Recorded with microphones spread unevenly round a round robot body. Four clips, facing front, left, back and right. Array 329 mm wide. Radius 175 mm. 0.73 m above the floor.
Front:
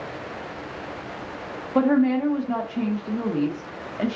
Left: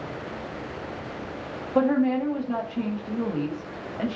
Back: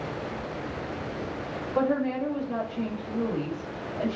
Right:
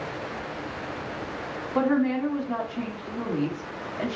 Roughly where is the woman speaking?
Ahead.